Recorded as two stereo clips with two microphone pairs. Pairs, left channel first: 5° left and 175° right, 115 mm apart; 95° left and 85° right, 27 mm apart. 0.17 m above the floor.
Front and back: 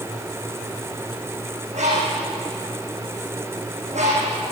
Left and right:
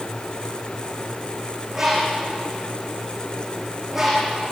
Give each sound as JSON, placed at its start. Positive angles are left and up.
{"t": 1.7, "sound": "a bird", "azimuth_deg": -165, "distance_m": 8.0}